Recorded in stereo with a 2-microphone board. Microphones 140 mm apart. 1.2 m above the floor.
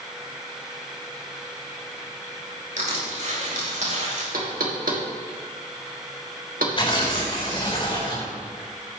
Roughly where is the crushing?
Right.